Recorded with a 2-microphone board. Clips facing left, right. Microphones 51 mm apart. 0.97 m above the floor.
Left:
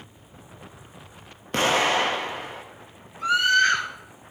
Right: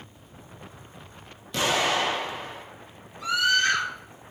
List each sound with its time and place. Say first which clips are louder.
1.5 s an explosion: left 3 dB; 45° left (ahead or behind), 1.7 m
3.2 s a scream: left 4 dB; 40° left (ahead or behind), 6 m